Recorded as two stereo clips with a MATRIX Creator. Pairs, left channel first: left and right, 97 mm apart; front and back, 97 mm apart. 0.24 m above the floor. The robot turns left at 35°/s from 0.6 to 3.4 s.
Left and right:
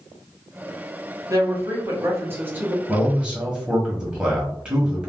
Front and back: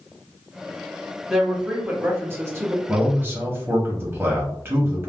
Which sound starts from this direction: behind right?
A man speaking, at 2.9 s.